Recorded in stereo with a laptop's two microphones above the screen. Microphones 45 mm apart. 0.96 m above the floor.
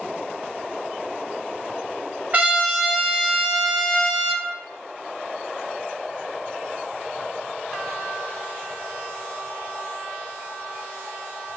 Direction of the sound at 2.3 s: 40° right (ahead or behind).